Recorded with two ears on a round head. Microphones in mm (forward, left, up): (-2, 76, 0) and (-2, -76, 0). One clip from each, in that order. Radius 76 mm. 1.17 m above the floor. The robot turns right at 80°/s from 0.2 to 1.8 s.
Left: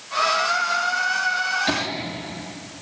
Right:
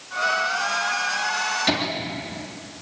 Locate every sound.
1.7 s laughter: 10° right (ahead or behind), 3 m; by 1.8 s 5° right (ahead or behind), 3 m